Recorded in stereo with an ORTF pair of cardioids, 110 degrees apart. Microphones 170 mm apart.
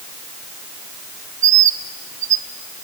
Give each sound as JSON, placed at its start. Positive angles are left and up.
{"t": 1.4, "sound": "a bird", "azimuth_deg": -50, "distance_m": 0.7}